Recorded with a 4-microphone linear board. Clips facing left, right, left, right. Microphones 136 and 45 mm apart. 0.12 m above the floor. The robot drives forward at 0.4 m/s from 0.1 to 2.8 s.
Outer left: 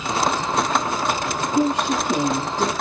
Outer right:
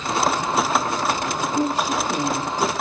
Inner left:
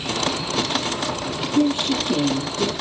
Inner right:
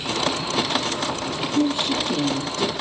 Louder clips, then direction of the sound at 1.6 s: Outer left 3 dB, inner left 2 dB; 20° left (ahead or behind).